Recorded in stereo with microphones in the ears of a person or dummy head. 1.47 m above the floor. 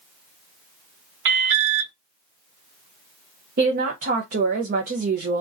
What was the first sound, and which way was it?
An alarm, 70° right (ahead or behind).